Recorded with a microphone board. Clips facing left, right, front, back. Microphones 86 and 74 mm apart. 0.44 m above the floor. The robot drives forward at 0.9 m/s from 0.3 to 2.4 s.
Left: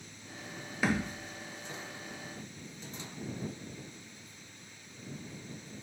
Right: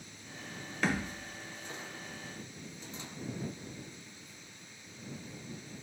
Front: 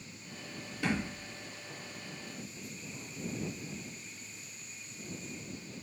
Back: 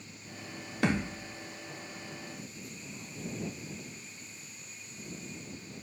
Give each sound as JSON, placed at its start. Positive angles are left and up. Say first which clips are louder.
{"t": 0.8, "sound": "a thud", "louder": "left 2 dB, back 4 dB", "azimuth_deg": 175, "distance_m": 0.7}